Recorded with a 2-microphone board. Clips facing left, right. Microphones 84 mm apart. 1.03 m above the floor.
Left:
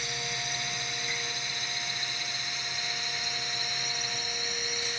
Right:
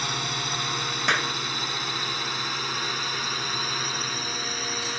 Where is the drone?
60° right (ahead or behind).